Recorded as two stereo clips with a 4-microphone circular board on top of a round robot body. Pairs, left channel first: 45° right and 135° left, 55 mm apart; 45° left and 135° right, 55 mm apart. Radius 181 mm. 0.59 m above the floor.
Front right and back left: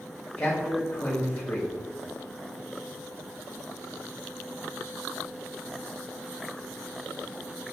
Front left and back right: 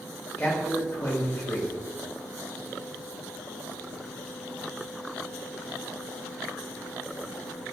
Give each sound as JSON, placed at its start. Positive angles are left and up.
{"t": 0.4, "sound": "a man speaking", "azimuth_deg": 0, "distance_m": 1.5}